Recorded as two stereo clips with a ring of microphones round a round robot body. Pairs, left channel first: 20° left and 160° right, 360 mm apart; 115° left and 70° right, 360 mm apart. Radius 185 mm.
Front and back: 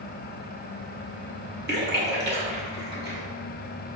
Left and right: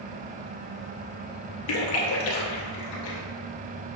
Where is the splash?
140° left, 0.9 m.